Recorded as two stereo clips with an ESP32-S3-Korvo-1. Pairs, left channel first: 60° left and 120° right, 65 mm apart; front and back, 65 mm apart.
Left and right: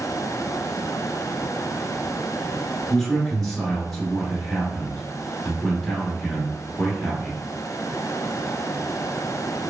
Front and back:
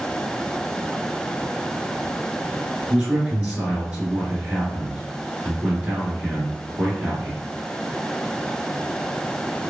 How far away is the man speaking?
About 1.6 m.